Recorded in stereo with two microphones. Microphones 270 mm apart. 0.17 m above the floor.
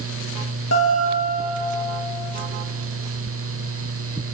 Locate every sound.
0.7 s a guitar: 70° left (ahead or behind), 2.5 m